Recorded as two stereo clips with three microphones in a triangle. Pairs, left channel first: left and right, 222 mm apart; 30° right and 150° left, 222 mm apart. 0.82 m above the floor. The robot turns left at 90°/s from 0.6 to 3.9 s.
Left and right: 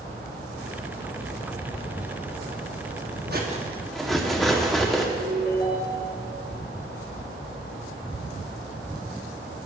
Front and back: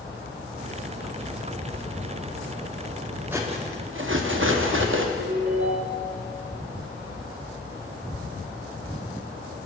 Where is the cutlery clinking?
130° right, 0.9 m; by 5.1 s straight behind, 0.9 m.